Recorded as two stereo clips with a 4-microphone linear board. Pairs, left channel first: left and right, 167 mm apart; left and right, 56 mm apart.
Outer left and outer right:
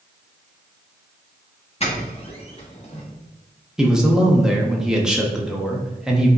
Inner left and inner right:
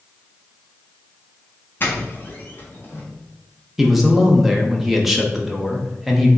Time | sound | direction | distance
1.8 | a doorbell | 40° left (ahead or behind) | 1.3 m
3.8 | a man speaking | 5° right (ahead or behind) | 0.9 m